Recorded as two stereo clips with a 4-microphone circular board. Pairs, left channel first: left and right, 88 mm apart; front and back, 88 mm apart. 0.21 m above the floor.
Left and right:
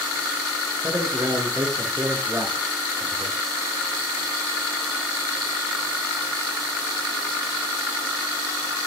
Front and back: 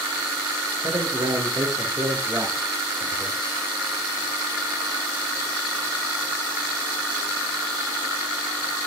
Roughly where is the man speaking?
Behind right.